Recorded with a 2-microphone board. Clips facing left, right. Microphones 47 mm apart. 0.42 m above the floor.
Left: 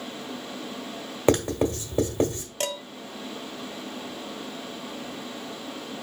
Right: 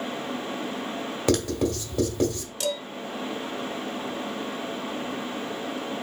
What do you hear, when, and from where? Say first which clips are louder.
1.3 s writing: left 2 dB; 25° left (ahead or behind), 1.2 m
2.6 s dishes clattering: right 2 dB; 40° left (ahead or behind), 0.6 m